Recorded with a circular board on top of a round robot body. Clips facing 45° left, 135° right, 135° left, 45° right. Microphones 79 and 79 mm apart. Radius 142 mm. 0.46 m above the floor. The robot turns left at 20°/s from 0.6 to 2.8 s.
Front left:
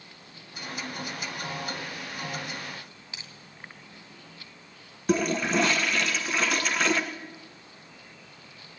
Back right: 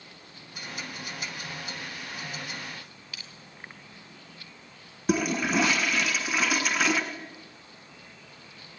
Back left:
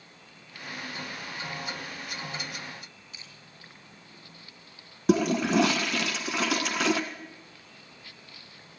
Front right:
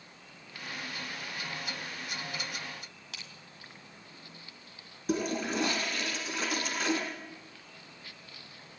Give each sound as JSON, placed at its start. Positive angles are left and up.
{"t": 3.1, "sound": "crushing", "azimuth_deg": -25, "distance_m": 2.0}
{"t": 5.1, "sound": "a toilet flushing", "azimuth_deg": 140, "distance_m": 1.5}